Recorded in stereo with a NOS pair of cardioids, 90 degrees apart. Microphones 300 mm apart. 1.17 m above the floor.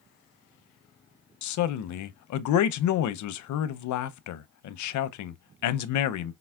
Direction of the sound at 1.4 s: 65° left.